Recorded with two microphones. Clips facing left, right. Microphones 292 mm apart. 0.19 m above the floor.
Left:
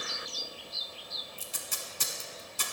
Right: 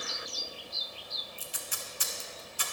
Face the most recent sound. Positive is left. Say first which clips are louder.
# even
turn(degrees=50)  # may be behind; listen again after turning